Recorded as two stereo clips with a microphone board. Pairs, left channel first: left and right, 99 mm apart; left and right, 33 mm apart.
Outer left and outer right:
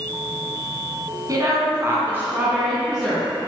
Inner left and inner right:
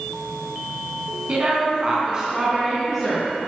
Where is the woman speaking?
35° right (ahead or behind), 2.5 m; by 3.3 s centre (ahead or behind), 3 m.